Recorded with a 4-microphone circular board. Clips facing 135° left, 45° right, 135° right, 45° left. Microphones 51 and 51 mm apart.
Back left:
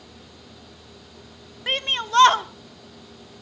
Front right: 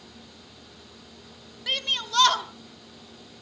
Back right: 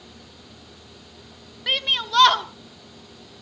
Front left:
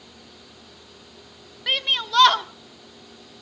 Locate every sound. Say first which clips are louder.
1.7 s a shout: back left 4 dB, even; 135° left, 0.7 m